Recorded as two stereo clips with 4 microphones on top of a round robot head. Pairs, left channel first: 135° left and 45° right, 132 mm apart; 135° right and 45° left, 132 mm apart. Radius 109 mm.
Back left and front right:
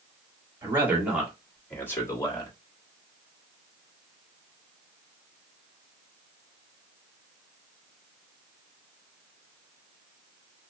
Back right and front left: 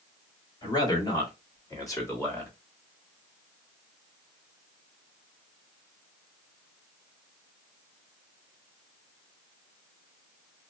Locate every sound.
0.6 s a man speaking: 100° right, 1.6 m; by 2.5 s 165° left, 1.6 m